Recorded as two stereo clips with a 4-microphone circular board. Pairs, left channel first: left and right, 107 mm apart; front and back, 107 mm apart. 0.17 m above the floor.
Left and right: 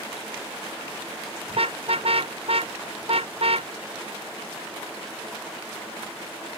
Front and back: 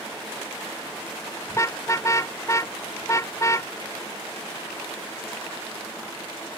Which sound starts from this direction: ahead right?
A car horn, at 1.5 s.